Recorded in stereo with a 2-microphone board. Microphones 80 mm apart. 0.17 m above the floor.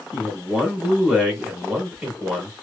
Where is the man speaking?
15° right (ahead or behind), 1.4 m.